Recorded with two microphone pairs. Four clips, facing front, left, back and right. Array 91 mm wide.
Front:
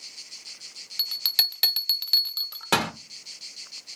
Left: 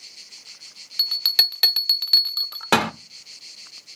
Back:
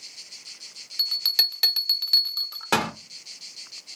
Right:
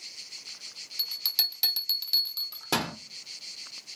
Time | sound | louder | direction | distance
1.0 | a bell | left 10 dB, back 2 dB | 95° left | 1.1 m